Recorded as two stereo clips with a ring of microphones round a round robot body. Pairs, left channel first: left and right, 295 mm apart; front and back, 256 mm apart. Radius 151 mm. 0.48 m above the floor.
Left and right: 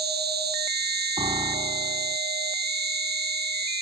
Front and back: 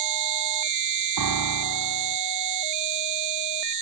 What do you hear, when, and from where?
0.0 s an insect: 150° right
1.2 s a piano: 165° right